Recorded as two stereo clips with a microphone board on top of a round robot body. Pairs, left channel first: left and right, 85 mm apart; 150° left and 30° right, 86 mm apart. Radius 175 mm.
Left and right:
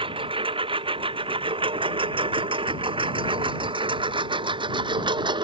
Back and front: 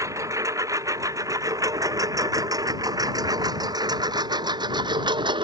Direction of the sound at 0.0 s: 85° right.